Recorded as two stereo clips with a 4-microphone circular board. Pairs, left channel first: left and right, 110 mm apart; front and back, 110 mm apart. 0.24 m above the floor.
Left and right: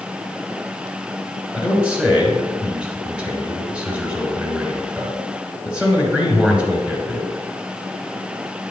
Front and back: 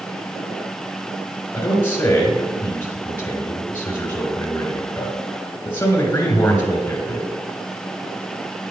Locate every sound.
1.5 s a man speaking: 30° right, 1.5 m